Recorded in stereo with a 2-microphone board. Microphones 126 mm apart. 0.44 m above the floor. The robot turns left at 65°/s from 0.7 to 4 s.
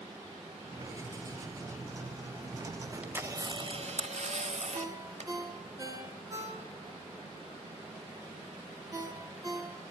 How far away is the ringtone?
About 4 m.